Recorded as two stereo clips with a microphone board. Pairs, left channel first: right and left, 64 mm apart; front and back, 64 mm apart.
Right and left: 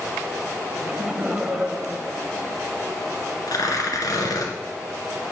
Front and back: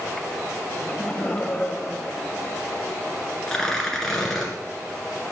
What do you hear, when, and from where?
0.7 s laughter: 25° left, 0.9 m
3.5 s tearing paper: 80° right, 1.8 m